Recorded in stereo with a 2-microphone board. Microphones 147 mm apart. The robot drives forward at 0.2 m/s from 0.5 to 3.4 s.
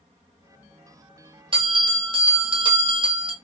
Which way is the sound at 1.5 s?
35° right (ahead or behind).